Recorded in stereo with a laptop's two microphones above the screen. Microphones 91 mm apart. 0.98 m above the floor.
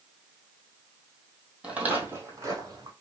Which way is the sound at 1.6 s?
10° right (ahead or behind).